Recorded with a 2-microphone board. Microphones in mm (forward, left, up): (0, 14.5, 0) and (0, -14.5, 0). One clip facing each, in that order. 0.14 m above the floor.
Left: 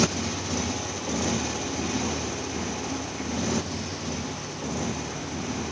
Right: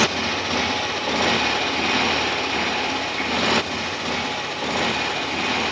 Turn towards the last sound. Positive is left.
turn(degrees=-65)  # may be behind; listen again after turning